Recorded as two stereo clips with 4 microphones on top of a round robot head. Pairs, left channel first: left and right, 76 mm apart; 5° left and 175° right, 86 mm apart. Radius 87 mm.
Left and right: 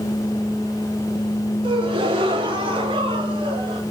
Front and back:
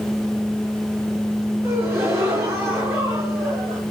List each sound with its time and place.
1.6 s a gasp: 110° right, 3.5 m